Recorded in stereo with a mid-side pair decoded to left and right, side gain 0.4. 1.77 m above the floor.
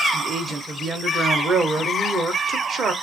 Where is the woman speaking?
65° right, 1.1 m.